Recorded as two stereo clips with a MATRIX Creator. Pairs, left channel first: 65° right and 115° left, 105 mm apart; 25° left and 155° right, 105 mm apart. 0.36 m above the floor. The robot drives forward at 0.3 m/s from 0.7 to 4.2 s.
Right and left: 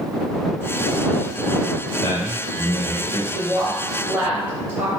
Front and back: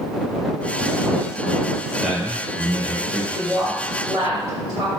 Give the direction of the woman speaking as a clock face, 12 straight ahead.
6 o'clock.